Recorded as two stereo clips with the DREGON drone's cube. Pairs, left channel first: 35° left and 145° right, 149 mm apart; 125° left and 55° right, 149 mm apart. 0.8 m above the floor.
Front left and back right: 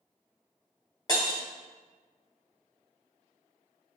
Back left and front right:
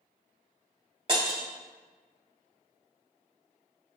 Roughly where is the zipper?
I don't hear a zipper.